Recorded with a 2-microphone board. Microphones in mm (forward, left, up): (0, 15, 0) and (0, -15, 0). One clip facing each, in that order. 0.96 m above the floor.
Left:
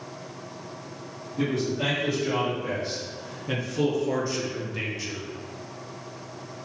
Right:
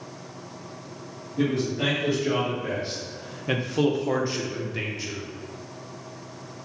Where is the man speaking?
25° right (ahead or behind), 1.7 m; by 5.3 s 5° right (ahead or behind), 1.0 m.